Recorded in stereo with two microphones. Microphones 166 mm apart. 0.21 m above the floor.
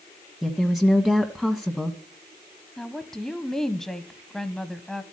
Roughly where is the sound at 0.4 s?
Centre.